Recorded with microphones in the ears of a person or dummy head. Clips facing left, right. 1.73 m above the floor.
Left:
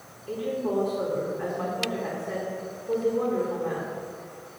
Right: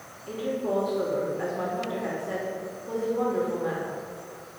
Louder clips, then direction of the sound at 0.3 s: Even; 50° right (ahead or behind).